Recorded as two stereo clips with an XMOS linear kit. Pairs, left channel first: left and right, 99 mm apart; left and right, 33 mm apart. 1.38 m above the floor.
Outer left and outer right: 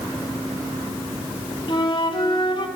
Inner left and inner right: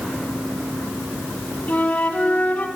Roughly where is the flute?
Left.